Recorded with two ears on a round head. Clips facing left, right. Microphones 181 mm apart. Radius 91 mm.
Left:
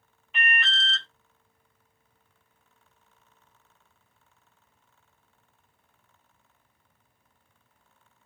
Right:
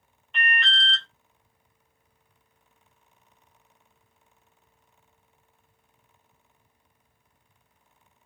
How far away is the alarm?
About 1.3 m.